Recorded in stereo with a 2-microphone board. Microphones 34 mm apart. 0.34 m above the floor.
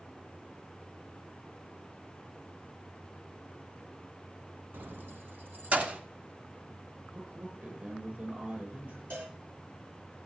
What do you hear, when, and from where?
4.7 s keys jangling: 70° right (ahead or behind), 1.8 m; by 6.0 s 45° right (ahead or behind), 1.4 m
7.1 s a man speaking: 65° right (ahead or behind), 9 m
9.1 s a cowbell: 80° right, 9.5 m